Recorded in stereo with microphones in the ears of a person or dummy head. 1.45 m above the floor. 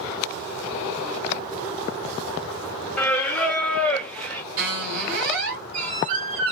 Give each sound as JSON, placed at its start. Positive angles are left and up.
{"t": 3.0, "sound": "singing", "side_deg": 10, "distance_m": 0.9}
{"t": 4.6, "sound": "a squeak", "side_deg": -55, "distance_m": 1.7}